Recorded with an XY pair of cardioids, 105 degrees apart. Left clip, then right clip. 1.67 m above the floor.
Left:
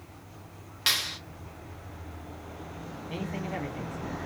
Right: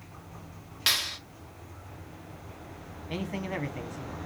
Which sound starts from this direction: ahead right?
A man speaking, at 3.1 s.